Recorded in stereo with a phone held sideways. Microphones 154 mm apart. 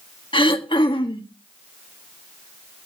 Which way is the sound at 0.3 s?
30° left (ahead or behind).